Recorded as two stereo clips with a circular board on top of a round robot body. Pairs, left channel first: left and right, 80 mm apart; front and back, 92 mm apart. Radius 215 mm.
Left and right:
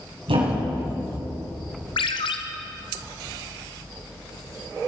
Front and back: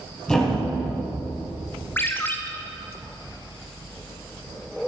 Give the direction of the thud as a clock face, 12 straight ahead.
3 o'clock.